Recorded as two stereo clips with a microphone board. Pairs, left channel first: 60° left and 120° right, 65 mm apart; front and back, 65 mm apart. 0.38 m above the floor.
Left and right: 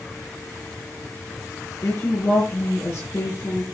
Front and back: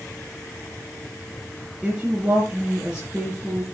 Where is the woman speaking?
105° left, 5 m.